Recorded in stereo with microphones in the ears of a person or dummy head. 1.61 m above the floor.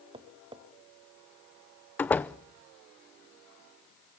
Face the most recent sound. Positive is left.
turn(degrees=10)  # may be behind; listen again after turning